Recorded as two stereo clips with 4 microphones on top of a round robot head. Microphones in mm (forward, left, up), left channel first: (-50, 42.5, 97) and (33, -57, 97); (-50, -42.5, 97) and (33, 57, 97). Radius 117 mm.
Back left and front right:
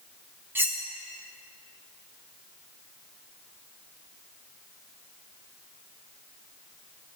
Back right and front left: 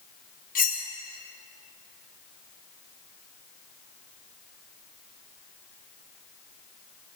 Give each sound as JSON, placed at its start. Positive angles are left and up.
{"t": 0.6, "sound": "cutlery clinking", "azimuth_deg": -125, "distance_m": 1.0}